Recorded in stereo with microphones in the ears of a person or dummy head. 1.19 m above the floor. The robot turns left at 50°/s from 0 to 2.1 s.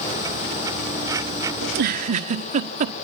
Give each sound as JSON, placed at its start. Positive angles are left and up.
{"t": 1.6, "sound": "a giggle", "side_deg": -60, "distance_m": 1.3}